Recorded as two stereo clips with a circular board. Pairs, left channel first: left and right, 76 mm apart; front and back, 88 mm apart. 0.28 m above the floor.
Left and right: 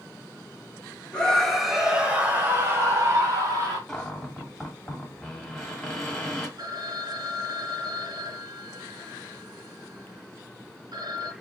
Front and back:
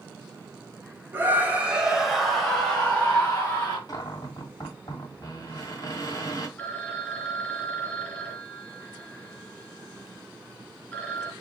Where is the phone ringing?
70° right, 2 m.